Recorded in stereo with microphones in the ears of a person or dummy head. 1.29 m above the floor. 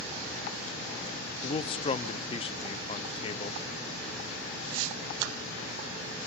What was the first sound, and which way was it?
A man speaking, 30° left (ahead or behind).